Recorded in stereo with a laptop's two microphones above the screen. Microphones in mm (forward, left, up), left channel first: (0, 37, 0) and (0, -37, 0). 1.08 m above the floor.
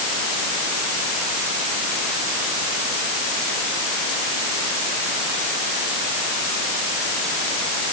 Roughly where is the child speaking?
No child speaking in this recording.